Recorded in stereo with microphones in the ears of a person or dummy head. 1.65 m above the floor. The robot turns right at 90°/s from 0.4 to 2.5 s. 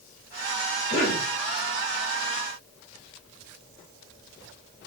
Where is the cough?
50° left, 2 m; by 1.3 s 80° left, 2 m.